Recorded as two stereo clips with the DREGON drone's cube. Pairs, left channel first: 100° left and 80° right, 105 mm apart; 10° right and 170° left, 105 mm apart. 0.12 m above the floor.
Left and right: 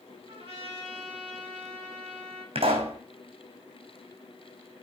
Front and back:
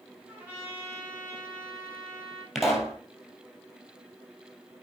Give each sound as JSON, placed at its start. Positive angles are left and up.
{"t": 0.3, "sound": "a trumpet", "azimuth_deg": -120, "distance_m": 7.0}
{"t": 2.5, "sound": "a pop", "azimuth_deg": -100, "distance_m": 2.5}